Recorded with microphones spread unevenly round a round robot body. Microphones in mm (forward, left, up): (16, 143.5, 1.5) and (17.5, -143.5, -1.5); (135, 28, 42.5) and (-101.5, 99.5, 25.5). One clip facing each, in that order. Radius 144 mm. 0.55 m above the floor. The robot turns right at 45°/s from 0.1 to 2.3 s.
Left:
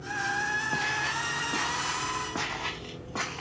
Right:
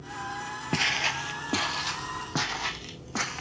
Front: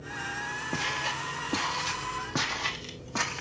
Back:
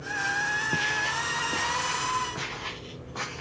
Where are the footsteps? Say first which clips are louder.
Right 7 dB, even; 120° right, 0.8 m; by 3.4 s 40° right, 2.5 m.